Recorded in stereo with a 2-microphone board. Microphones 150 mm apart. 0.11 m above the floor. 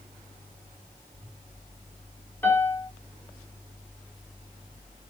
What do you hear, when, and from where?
2.4 s a piano: 15° left (ahead or behind), 1.0 m